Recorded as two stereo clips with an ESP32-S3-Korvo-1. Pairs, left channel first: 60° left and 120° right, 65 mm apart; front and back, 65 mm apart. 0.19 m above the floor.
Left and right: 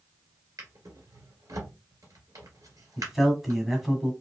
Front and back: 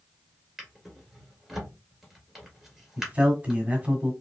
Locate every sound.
0.6 s a drawer: 95° right, 1.7 m
3.0 s a man speaking: 160° left, 1.3 m